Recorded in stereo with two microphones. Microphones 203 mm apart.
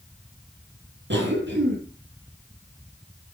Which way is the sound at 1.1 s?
60° right (ahead or behind).